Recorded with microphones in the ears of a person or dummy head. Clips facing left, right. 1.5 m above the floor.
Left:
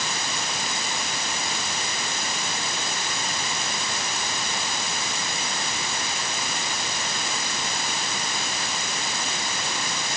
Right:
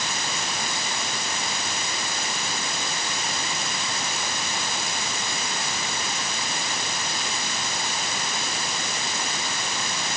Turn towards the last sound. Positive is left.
No sound to turn to.